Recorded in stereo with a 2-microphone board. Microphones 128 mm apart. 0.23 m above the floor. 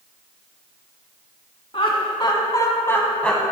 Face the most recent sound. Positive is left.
turn(degrees=0)  # may be behind; listen again after turning